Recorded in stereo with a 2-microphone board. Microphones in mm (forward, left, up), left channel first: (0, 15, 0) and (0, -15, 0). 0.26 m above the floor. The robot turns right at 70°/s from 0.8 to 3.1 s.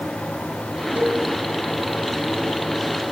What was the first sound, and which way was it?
A cowbell, 70° right (ahead or behind).